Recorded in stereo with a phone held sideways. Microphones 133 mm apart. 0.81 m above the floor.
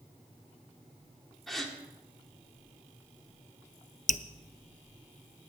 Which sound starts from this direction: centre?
A gasp, at 1.5 s.